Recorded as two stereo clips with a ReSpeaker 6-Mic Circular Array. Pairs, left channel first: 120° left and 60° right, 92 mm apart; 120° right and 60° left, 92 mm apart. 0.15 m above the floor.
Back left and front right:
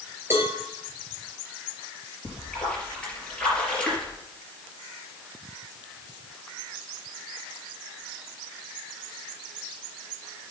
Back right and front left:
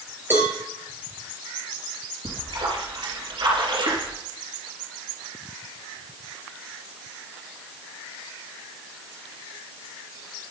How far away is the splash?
About 4 m.